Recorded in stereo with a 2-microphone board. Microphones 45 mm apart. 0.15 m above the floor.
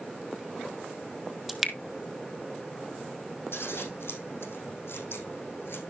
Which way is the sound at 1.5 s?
5° right (ahead or behind).